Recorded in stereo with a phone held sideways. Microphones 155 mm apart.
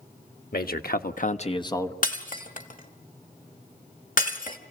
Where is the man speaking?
75° left (ahead or behind), 1.5 m; by 1.9 s 15° left (ahead or behind), 1.3 m.